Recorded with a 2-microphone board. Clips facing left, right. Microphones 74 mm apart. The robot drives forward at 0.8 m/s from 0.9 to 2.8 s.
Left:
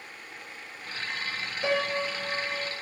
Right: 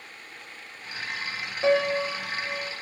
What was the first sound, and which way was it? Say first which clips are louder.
A piano: right 6 dB; 25° right (ahead or behind).